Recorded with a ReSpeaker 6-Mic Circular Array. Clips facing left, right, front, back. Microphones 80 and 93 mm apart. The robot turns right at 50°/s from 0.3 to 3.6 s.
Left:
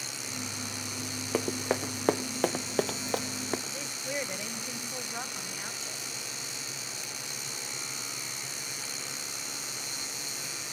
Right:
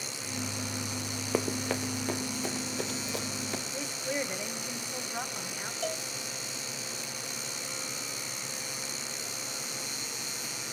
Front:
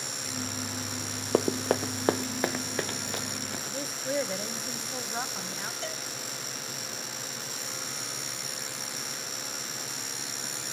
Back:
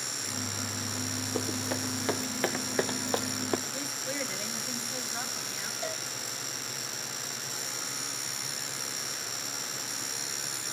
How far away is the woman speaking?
About 1.3 m.